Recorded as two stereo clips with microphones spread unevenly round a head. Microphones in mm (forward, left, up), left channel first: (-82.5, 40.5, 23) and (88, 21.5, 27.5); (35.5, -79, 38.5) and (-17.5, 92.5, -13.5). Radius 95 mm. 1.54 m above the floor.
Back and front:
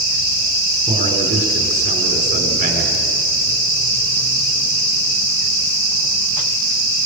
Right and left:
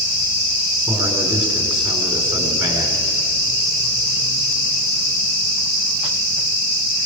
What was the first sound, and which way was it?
A man speaking, 35° left.